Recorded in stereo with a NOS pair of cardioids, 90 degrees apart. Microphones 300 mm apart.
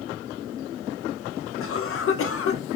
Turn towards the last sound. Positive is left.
turn(degrees=45)